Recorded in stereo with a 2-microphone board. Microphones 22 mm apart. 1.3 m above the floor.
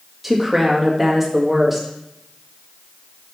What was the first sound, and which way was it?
A woman speaking, 5° right (ahead or behind).